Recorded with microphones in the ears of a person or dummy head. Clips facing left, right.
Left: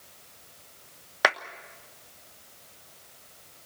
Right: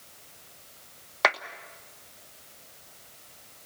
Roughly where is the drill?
I don't hear a drill.